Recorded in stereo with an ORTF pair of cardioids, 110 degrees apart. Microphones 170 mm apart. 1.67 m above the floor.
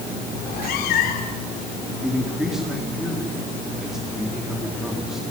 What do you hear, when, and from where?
0.4 s a cat meowing: 65° left, 3 m
2.0 s a man speaking: straight ahead, 4 m